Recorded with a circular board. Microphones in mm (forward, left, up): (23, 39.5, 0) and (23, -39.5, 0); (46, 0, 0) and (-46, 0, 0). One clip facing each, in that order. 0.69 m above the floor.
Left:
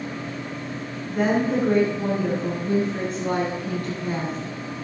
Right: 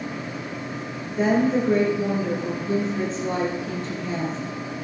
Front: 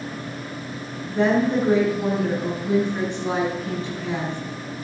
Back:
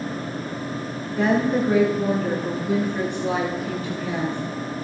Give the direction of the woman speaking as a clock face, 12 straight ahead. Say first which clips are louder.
Right 1 dB, front 1 dB; 10 o'clock.